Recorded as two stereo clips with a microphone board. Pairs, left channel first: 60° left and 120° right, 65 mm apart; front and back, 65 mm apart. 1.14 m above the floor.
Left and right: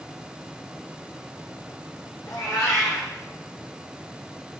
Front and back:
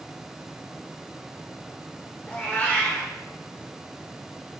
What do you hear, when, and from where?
2.3 s a cat meowing: 65° left, 0.6 m